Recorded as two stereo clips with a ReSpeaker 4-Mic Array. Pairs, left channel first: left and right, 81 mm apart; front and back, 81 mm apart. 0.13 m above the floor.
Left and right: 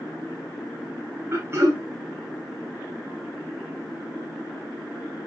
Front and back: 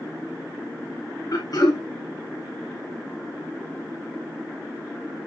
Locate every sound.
1.3 s throat clearing: 35° right, 5 m